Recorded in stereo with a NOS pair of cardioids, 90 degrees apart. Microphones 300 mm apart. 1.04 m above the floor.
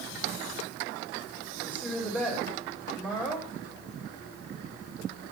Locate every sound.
1.6 s a woman speaking: 5° left, 3.5 m